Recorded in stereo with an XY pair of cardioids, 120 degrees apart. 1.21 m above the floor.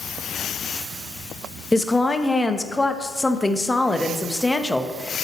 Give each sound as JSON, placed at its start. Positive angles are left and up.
{"t": 1.7, "sound": "a woman speaking", "azimuth_deg": 15, "distance_m": 0.9}